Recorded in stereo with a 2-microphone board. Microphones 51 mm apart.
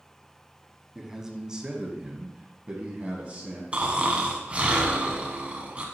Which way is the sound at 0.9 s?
10° right (ahead or behind).